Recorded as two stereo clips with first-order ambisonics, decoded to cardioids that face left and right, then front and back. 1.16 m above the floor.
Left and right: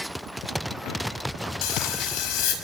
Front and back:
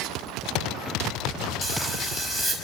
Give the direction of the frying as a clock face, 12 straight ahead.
9 o'clock.